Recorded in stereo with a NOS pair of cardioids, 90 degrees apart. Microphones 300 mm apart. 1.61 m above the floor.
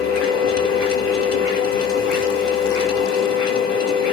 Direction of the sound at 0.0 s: 55° left.